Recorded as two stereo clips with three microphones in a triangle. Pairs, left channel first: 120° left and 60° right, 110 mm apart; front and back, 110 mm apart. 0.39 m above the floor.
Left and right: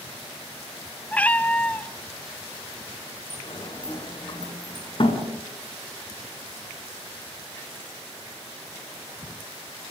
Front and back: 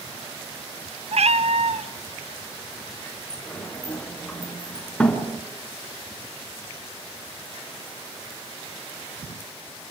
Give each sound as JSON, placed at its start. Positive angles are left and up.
{"t": 1.1, "sound": "a cat meowing", "azimuth_deg": -160, "distance_m": 1.0}
{"t": 3.3, "sound": "a sliding door", "azimuth_deg": 80, "distance_m": 3.0}